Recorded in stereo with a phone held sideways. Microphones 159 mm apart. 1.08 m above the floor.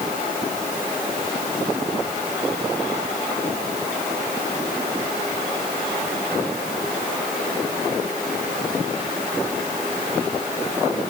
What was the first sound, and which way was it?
Only background noise.